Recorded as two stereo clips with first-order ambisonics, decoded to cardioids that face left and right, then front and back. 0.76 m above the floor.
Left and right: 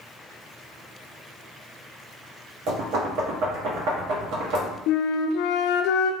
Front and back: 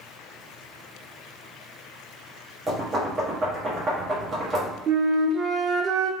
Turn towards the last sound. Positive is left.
turn(degrees=125)